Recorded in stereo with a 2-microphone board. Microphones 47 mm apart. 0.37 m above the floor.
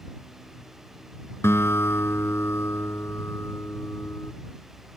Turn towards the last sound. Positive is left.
turn(degrees=65)  # may be behind; listen again after turning